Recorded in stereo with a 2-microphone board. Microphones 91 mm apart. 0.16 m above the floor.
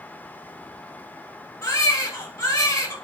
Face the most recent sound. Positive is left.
turn(degrees=45)  # may be behind; listen again after turning